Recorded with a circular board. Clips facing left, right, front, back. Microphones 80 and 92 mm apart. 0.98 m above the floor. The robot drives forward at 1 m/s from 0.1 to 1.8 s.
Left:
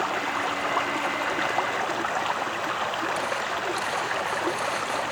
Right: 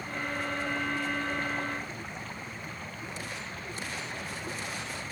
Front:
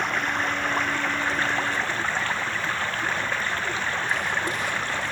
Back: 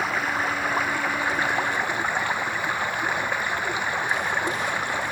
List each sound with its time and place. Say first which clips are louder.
0.0 s running water: left 8 dB, back 1 dB; 95° left; by 5.1 s 105° left